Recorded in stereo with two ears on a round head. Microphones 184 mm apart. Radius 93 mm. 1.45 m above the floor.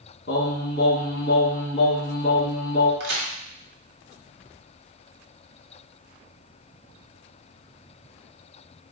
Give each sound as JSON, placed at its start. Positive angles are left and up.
{"t": 0.3, "sound": "singing", "side_deg": 55, "distance_m": 1.0}
{"t": 3.0, "sound": "a crack", "side_deg": -55, "distance_m": 1.6}